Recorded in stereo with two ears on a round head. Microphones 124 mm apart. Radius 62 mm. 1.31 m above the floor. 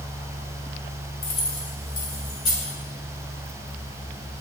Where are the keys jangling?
45° left (ahead or behind), 2.0 m; by 2.7 s 30° left (ahead or behind), 4 m.